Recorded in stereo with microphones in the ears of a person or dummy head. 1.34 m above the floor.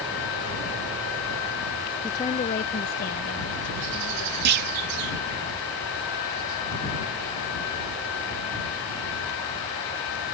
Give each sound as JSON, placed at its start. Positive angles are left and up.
{"t": 2.0, "sound": "a woman speaking", "side_deg": 10}
{"t": 4.5, "sound": "a clunk", "side_deg": -50}